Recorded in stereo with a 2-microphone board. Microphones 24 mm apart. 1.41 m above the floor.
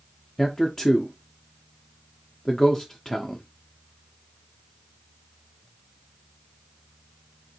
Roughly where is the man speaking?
Centre.